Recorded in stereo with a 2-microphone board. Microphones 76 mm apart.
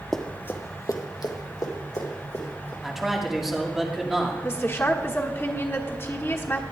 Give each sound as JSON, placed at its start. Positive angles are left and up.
{"t": 0.1, "sound": "running footsteps", "side_deg": 5, "distance_m": 0.9}
{"t": 2.8, "sound": "a man speaking", "side_deg": -5, "distance_m": 1.5}
{"t": 4.4, "sound": "a woman speaking", "side_deg": 35, "distance_m": 1.2}